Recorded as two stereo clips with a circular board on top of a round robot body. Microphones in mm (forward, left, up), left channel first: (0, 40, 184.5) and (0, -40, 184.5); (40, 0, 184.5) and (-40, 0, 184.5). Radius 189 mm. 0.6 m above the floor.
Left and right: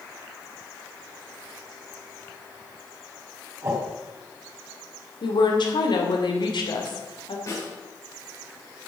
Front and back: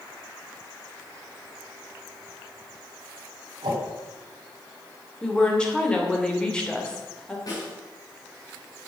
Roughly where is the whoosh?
Behind right.